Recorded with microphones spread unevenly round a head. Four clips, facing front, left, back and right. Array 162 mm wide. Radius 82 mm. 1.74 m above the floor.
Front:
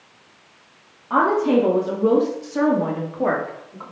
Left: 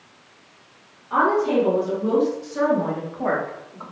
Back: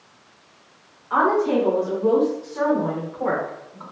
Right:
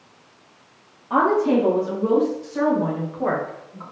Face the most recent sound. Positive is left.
turn(degrees=25)